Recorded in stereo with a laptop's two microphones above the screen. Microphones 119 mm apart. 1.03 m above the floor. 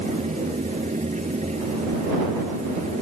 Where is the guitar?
No guitar in this recording.